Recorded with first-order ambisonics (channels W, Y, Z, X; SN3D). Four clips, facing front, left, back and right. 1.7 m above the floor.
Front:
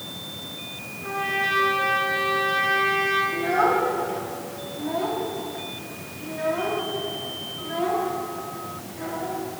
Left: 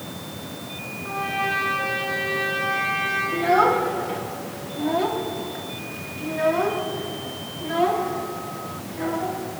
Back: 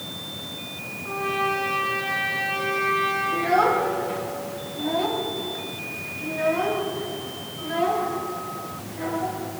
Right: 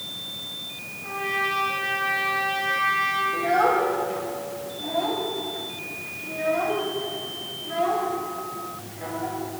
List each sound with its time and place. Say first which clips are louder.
1.0 s a trumpet: even, even; 10° left, 4.5 m
3.3 s a child speaking: left 4 dB, back 1 dB; 100° left, 2 m